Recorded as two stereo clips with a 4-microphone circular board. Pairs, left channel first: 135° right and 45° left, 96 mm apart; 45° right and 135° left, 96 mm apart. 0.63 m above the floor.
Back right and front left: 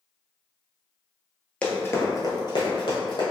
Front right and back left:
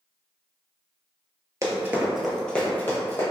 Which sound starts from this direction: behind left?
Running footsteps, at 1.6 s.